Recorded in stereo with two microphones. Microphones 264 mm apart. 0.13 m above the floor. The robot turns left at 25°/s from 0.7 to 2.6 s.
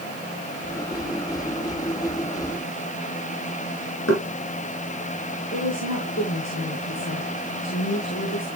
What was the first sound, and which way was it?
Knocking, 70° left (ahead or behind).